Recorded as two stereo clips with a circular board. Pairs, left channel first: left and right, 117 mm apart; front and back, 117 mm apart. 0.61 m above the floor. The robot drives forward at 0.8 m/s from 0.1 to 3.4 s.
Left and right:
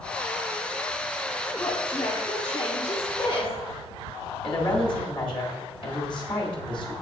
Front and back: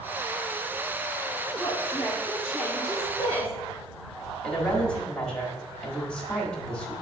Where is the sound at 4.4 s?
80° left, 1.5 m.